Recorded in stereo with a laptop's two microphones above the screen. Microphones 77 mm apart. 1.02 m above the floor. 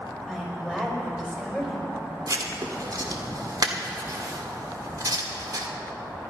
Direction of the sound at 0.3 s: 10° right (ahead or behind).